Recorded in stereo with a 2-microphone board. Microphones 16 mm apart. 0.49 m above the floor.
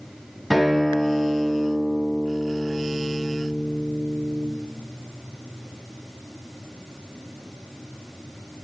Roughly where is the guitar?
Centre.